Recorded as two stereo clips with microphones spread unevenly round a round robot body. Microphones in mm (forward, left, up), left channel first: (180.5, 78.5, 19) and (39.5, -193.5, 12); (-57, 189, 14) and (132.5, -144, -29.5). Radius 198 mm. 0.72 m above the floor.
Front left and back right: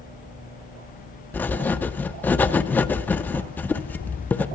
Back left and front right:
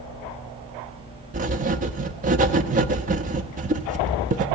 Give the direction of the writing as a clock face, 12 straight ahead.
1 o'clock.